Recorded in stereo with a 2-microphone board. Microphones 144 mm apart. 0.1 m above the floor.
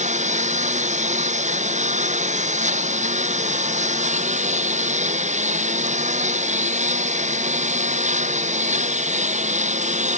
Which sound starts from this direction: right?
A lawn mower, at 0.0 s.